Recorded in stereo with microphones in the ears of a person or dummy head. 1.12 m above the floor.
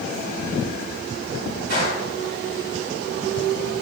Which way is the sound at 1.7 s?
65° right (ahead or behind).